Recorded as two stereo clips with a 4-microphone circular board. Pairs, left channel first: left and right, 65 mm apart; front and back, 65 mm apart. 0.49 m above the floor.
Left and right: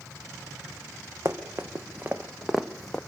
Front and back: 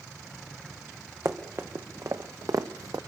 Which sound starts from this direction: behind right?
Running footsteps, at 1.2 s.